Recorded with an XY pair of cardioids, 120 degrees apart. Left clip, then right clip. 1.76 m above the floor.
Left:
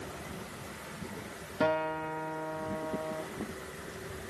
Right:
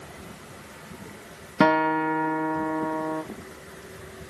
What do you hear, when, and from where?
1.6 s a guitar: 70° right, 0.8 m